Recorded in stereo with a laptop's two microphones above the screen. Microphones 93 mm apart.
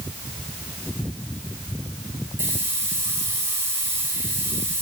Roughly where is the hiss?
Right.